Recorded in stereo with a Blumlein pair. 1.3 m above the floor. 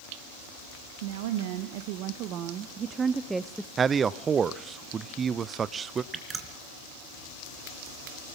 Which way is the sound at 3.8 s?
20° right.